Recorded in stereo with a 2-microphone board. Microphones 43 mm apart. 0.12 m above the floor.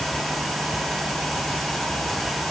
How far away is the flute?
No flute in this recording.